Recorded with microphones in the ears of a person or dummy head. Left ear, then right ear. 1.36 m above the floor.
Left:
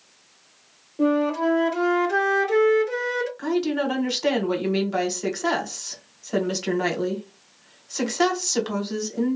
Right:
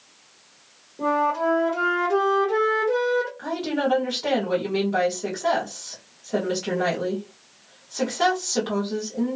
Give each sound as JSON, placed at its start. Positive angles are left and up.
{"t": 1.0, "sound": "a flute", "side_deg": 70, "distance_m": 1.4}
{"t": 3.4, "sound": "a woman speaking", "side_deg": 80, "distance_m": 1.5}